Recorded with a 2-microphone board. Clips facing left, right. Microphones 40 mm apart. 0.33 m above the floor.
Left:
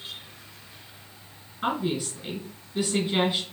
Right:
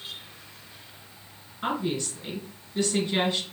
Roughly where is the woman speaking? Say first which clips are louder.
Left 1 dB; centre.